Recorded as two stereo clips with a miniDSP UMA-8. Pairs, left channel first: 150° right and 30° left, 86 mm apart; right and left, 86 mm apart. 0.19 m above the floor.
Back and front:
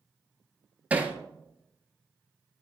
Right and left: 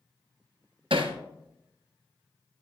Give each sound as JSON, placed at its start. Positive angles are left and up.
{"t": 0.9, "sound": "hammering", "azimuth_deg": 100, "distance_m": 1.3}